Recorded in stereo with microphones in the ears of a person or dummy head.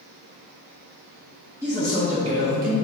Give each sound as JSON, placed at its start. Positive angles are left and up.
{"t": 1.6, "sound": "a man speaking", "side_deg": -15, "distance_m": 0.9}